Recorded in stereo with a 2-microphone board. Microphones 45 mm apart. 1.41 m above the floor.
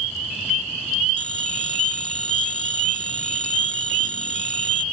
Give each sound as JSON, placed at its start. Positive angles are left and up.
{"t": 1.2, "sound": "a phone ringing", "side_deg": 25}